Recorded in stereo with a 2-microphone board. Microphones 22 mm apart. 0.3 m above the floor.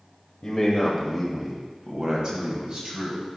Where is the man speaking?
20° left (ahead or behind), 1.0 m; by 3.2 s 45° right (ahead or behind), 2.0 m.